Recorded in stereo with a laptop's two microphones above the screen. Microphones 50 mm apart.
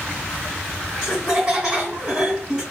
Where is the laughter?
15° right (ahead or behind), 1.7 m.